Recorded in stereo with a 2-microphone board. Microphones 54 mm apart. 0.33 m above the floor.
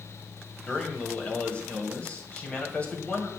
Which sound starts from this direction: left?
A man speaking, at 0.7 s.